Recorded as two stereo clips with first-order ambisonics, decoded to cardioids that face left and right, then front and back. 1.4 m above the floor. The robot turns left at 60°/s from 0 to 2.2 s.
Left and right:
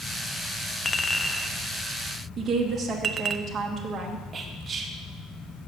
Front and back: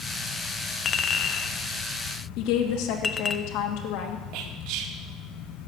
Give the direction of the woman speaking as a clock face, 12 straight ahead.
1 o'clock.